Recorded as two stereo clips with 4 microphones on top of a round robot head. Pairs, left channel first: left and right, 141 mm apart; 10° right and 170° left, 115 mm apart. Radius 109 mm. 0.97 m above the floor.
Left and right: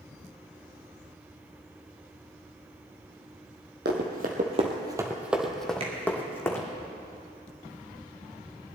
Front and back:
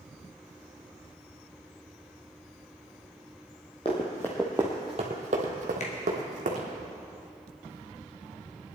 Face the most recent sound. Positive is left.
turn(degrees=-35)